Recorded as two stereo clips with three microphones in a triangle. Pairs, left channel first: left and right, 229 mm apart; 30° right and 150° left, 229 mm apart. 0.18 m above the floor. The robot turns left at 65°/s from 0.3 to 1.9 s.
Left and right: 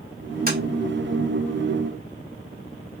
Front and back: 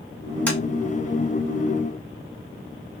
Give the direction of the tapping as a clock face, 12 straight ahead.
4 o'clock.